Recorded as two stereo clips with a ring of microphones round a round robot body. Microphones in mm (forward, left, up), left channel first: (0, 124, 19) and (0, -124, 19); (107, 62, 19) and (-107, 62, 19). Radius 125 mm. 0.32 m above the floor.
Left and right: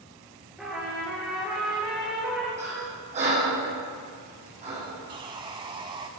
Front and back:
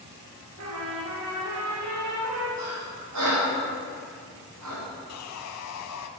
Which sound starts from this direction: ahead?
Sawing, at 5.1 s.